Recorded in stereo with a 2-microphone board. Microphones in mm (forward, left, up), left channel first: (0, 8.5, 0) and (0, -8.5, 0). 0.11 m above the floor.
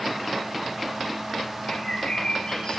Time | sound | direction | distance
1.7 | a bird | 60° left (ahead or behind) | 8 m